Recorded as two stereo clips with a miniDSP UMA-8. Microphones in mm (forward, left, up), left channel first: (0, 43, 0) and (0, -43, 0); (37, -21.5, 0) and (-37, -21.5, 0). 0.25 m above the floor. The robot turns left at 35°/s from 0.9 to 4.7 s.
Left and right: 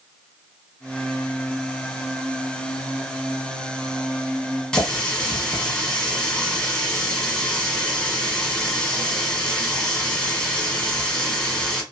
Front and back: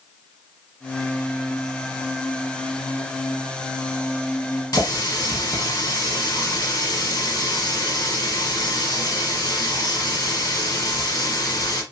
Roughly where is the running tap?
Ahead.